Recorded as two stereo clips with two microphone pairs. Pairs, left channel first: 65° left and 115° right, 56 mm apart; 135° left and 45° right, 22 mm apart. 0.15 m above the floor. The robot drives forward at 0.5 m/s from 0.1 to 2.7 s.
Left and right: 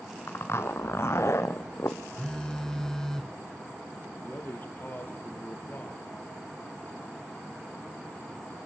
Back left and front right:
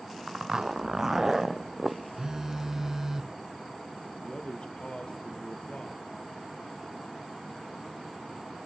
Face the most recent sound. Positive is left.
turn(degrees=115)